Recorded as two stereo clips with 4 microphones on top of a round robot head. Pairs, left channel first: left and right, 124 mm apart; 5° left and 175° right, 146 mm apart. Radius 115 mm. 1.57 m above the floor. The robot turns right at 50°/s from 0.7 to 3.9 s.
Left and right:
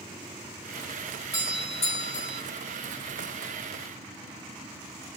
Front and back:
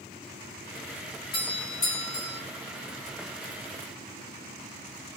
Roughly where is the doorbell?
Ahead left.